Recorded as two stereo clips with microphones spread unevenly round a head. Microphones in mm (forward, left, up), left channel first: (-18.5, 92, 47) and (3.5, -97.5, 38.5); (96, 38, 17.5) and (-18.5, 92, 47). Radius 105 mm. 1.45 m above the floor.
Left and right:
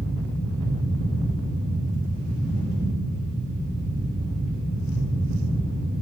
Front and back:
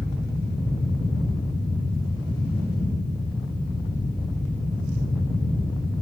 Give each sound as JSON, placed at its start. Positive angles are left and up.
{"t": 0.0, "sound": "a fan", "azimuth_deg": -95, "distance_m": 4.0}